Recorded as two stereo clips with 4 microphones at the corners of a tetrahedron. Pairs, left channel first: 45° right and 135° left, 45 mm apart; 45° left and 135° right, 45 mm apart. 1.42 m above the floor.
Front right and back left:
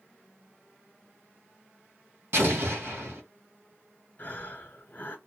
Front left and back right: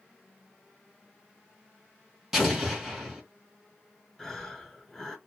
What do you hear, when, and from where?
2.3 s an explosion: 140° left, 1.9 m
4.2 s breathing: 25° right, 1.4 m